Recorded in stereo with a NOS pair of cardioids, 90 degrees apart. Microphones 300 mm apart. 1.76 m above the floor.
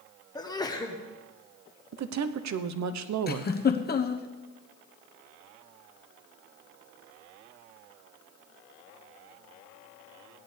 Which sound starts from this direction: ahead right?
A woman speaking, at 1.9 s.